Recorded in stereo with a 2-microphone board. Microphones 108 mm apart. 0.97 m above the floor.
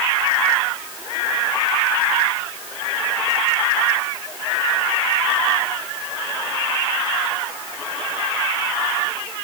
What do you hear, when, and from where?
Only background noise.